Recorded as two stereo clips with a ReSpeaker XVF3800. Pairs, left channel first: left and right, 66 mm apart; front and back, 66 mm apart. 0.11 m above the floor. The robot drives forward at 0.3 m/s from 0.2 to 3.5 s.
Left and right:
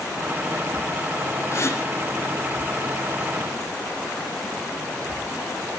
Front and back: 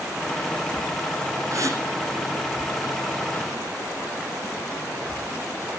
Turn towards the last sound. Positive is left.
turn(degrees=150)